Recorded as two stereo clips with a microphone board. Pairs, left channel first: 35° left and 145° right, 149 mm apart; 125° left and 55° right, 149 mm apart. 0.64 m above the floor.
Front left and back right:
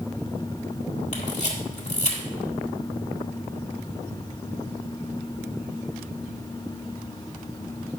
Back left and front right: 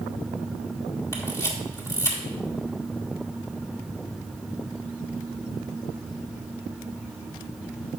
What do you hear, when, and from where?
1.1 s a camera shutter: 60° left, 1.7 m